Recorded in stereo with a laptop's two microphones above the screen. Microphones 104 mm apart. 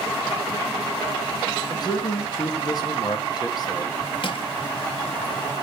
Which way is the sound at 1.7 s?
40° left (ahead or behind).